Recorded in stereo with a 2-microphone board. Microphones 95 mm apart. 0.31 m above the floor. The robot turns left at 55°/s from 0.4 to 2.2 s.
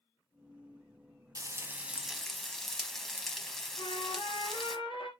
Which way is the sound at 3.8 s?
60° left (ahead or behind).